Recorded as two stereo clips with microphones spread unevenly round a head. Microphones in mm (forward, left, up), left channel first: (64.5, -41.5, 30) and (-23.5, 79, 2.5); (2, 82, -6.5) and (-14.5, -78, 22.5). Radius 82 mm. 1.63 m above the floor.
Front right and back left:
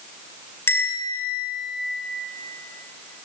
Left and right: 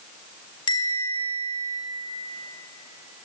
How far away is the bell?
About 4 m.